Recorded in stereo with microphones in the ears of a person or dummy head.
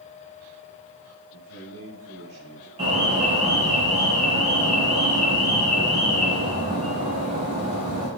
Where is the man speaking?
85° right, 2.5 m; by 2.7 s 75° right (ahead or behind), 3 m.